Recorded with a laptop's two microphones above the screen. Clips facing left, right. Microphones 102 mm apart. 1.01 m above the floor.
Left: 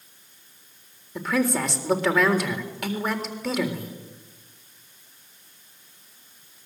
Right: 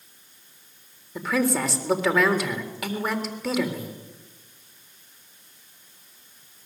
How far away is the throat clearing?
No throat clearing in this recording.